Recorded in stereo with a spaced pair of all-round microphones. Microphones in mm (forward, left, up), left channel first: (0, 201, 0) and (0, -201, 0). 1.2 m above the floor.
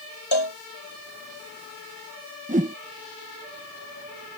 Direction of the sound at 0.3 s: 85° left.